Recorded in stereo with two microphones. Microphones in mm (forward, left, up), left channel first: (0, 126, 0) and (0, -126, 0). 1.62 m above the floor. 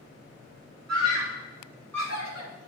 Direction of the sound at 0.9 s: 70° right (ahead or behind).